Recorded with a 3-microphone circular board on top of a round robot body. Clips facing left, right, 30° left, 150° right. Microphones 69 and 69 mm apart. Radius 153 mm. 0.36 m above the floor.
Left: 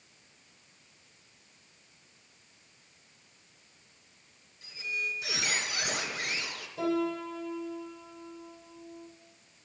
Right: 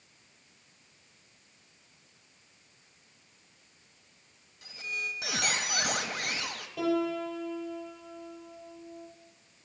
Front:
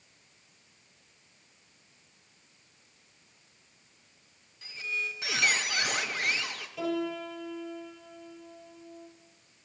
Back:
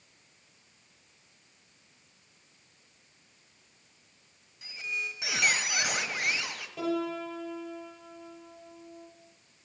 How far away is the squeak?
About 1.5 m.